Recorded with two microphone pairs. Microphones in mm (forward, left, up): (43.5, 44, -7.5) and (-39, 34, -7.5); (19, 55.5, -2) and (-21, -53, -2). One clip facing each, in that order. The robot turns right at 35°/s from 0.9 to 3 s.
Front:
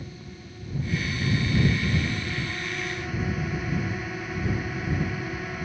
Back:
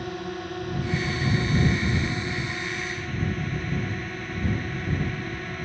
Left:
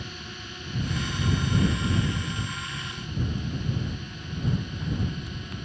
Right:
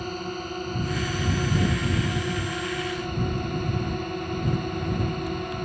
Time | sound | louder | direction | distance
0.0 | a drone | back 11 dB, right 10 dB | 150° right | ?